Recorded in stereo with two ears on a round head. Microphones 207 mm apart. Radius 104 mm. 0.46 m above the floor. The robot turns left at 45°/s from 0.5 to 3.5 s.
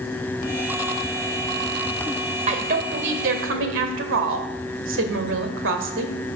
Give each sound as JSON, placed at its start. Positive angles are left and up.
{"t": 2.5, "sound": "a woman speaking", "azimuth_deg": -40, "distance_m": 2.0}